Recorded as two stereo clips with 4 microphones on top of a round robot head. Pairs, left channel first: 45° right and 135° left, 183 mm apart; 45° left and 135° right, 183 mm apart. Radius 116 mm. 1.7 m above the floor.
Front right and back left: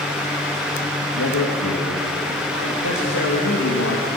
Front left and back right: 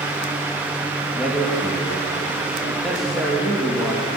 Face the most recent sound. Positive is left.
turn(degrees=-45)